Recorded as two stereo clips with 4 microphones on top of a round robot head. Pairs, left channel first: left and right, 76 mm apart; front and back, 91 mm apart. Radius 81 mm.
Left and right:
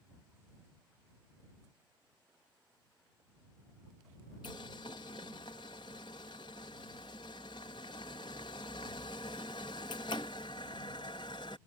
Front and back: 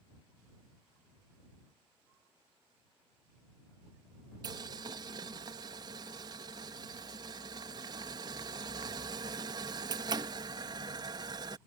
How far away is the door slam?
I don't hear a door slam.